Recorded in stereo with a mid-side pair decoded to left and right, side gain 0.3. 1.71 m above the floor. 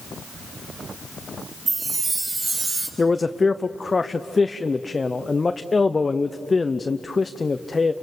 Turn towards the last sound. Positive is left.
turn(degrees=35)